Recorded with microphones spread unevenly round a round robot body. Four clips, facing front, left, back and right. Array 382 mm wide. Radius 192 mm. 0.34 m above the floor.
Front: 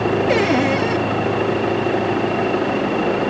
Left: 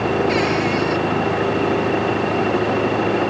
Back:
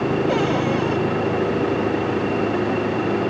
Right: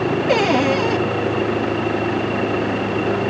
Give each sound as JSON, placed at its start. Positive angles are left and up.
{"t": 0.3, "sound": "a cupboard door", "azimuth_deg": -35}